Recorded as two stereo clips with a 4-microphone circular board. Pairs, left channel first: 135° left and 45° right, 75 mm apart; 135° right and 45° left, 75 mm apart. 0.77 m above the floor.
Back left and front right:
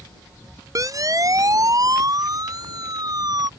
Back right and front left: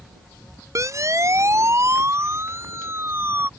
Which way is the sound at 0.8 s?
5° right.